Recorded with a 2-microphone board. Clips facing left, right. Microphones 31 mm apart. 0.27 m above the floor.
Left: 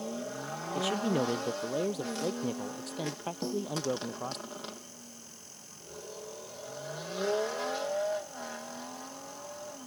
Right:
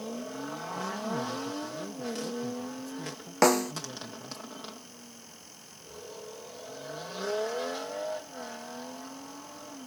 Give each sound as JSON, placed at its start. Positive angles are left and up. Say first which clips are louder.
{"t": 0.8, "sound": "a man speaking", "louder": "left 5 dB", "side_deg": 70}
{"t": 3.4, "sound": "a snare drum", "louder": "right 13 dB", "side_deg": -85}